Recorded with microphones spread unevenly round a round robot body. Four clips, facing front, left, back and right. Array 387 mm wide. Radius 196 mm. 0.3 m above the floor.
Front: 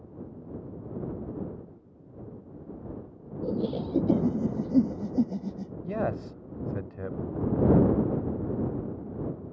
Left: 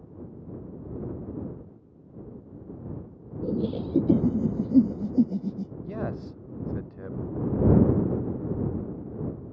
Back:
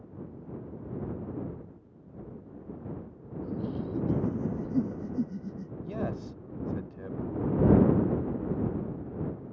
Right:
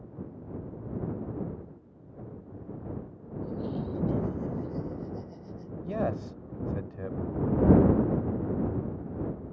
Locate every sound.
3.4 s laughter: 70° left; by 5.7 s 80° left
5.8 s a man speaking: 35° right